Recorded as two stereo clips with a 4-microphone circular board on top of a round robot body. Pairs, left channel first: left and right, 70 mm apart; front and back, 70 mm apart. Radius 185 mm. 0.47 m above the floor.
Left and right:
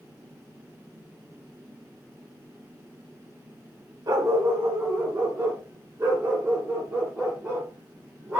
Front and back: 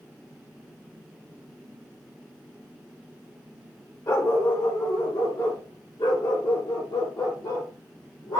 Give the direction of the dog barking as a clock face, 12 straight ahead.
2 o'clock.